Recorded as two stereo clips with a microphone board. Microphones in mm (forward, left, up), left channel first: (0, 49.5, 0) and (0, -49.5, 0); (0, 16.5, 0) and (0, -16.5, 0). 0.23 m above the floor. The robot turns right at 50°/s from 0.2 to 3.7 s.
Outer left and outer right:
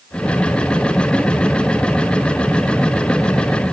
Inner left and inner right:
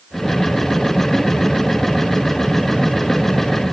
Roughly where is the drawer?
No drawer in this recording.